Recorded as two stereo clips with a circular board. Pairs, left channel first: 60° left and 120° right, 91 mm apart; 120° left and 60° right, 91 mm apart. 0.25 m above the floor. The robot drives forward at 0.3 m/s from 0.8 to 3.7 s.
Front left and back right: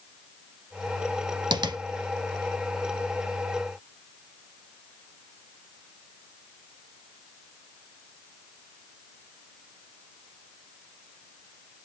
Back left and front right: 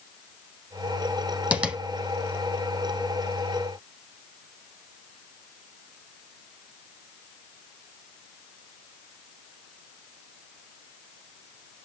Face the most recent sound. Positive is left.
turn(degrees=-160)